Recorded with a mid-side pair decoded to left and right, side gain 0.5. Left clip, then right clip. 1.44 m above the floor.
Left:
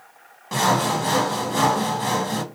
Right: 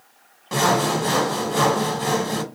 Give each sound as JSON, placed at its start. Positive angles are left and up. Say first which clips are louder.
{"t": 0.5, "sound": "sawing", "louder": "right 1 dB", "azimuth_deg": -5, "distance_m": 0.8}